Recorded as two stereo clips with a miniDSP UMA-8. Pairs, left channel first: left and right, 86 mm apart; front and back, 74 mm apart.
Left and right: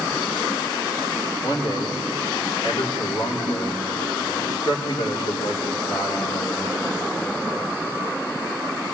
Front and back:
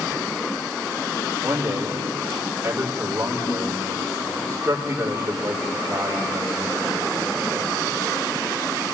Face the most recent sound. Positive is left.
turn(degrees=115)